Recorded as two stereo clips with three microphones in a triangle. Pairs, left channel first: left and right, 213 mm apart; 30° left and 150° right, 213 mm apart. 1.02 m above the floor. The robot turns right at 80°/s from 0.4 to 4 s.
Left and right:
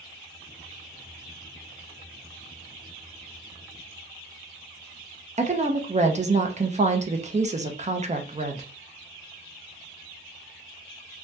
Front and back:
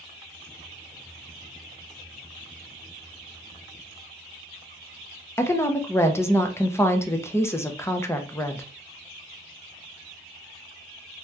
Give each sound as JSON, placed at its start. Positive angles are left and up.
{"t": 5.4, "sound": "a woman speaking", "azimuth_deg": -45, "distance_m": 0.6}